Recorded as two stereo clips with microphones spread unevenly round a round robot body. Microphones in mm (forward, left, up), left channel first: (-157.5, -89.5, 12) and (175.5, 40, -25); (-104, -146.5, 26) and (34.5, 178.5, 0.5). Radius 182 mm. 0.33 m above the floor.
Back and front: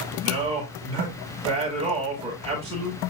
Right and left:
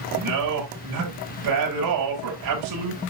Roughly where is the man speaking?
Left.